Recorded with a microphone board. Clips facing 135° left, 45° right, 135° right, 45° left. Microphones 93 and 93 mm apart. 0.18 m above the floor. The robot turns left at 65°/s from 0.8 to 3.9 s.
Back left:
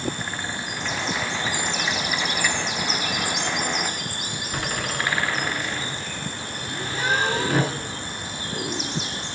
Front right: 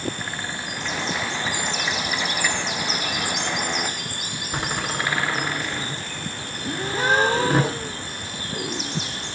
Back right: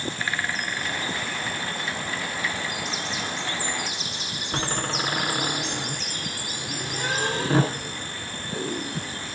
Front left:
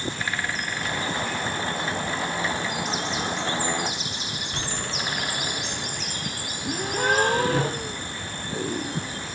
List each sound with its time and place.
4.5 s a door slam: 110° right, 1.8 m
6.6 s a gasp: 5° left, 1.8 m